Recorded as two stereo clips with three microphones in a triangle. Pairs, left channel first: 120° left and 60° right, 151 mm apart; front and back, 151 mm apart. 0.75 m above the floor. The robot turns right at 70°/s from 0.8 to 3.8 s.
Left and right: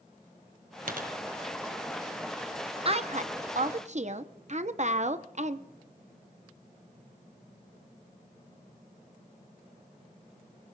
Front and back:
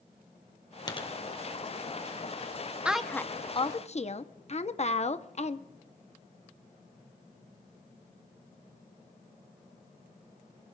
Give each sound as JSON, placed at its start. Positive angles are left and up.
{"t": 0.9, "sound": "a dropped coin", "azimuth_deg": -60, "distance_m": 1.7}
{"t": 2.9, "sound": "a woman speaking", "azimuth_deg": -100, "distance_m": 0.9}